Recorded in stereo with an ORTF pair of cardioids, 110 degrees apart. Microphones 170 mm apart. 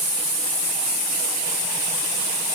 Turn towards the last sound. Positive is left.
No sound to turn to.